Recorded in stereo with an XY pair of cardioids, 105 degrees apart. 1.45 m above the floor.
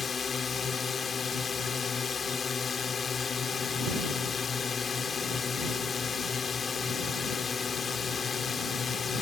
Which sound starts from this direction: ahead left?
A drone, at 0.0 s.